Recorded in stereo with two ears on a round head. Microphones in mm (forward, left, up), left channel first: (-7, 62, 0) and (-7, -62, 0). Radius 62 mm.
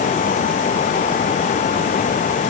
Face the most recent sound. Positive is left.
No sound to turn to.